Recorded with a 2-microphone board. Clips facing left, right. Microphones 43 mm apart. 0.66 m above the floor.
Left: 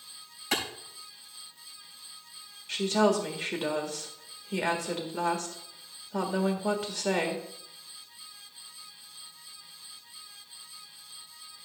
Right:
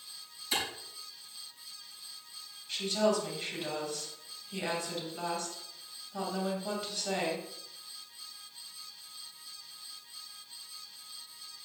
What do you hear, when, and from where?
0.5 s a clap: 60° left (ahead or behind), 3.5 m
2.7 s a woman speaking: 70° left (ahead or behind), 1.8 m